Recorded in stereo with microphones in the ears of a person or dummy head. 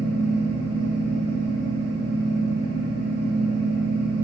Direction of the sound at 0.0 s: 45° right (ahead or behind).